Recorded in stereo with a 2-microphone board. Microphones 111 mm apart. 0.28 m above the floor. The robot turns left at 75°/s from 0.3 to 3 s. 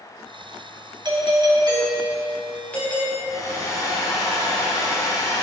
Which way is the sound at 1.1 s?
70° right.